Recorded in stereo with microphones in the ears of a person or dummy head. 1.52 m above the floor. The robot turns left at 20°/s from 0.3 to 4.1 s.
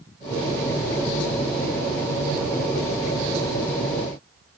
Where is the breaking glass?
I don't hear breaking glass.